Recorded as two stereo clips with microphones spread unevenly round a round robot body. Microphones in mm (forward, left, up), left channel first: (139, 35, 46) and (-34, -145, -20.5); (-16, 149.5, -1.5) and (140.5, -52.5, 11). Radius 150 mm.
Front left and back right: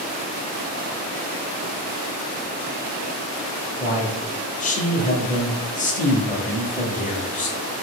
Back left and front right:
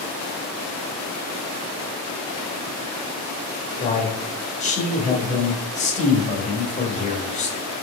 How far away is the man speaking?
About 0.9 m.